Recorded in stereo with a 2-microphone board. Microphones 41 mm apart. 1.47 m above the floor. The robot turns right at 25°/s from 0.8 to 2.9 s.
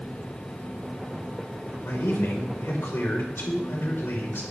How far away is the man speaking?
About 4.5 m.